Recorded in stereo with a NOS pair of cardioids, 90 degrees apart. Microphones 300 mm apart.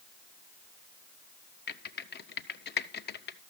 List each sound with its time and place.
1.7 s typing on a keyboard: 35° left, 0.6 m